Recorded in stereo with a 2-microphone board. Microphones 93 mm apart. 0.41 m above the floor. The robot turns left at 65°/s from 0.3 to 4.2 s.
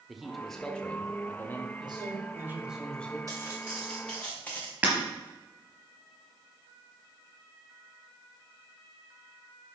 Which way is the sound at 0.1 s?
Centre (ahead or behind).